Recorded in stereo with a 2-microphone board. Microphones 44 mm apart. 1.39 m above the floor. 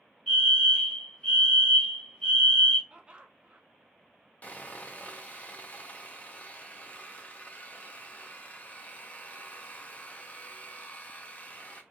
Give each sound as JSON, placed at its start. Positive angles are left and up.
{"t": 0.3, "sound": "a fire alarm", "side_deg": 15, "distance_m": 1.3}
{"t": 2.9, "sound": "laughter", "side_deg": -25, "distance_m": 0.6}
{"t": 4.4, "sound": "sawing", "side_deg": 35, "distance_m": 0.6}